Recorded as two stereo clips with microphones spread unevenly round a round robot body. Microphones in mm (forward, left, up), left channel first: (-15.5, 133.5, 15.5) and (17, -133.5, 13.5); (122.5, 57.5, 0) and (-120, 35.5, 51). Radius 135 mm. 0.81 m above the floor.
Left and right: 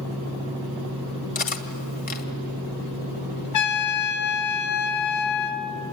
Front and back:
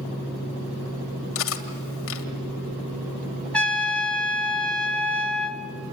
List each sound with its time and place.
1.4 s cutlery clinking: 40° left, 2 m
3.5 s a trumpet: 85° left, 1.8 m